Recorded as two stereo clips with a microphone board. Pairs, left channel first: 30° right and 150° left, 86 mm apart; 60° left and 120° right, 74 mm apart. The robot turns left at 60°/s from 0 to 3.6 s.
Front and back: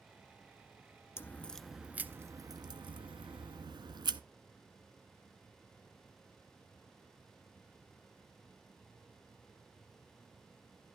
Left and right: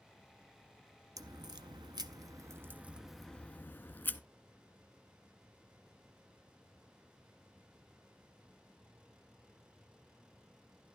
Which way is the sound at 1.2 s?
90° right.